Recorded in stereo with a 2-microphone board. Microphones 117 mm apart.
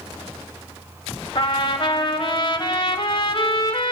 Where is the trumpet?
45° left (ahead or behind), 1.3 m.